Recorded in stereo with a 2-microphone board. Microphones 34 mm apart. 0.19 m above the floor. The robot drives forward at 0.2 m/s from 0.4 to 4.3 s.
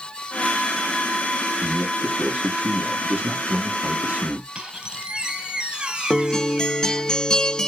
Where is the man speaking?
60° right (ahead or behind), 2 m.